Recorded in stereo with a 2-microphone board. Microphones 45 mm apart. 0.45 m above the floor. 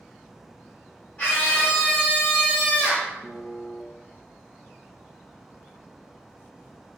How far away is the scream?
About 0.9 m.